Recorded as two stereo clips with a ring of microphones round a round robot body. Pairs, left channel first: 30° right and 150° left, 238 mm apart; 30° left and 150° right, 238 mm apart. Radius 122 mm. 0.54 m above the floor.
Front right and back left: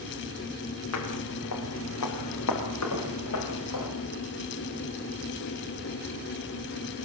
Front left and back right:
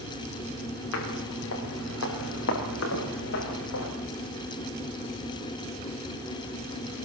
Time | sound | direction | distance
0.9 | footsteps | 5° right | 6.5 m